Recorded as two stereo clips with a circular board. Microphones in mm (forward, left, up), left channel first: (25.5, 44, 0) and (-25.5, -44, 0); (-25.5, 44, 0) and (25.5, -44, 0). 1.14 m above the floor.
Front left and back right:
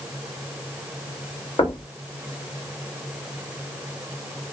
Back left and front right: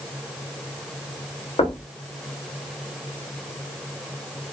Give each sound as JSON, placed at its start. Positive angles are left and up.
{"t": 1.6, "sound": "knocking", "azimuth_deg": 90, "distance_m": 1.1}